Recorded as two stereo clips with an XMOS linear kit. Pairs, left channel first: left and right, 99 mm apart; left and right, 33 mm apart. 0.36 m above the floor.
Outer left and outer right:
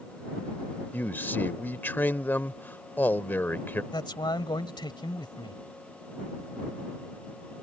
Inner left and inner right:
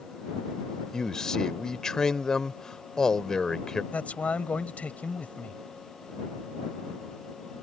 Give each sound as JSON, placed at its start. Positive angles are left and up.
{"t": 0.9, "sound": "a man speaking", "side_deg": 20}
{"t": 3.9, "sound": "a man speaking", "side_deg": 50}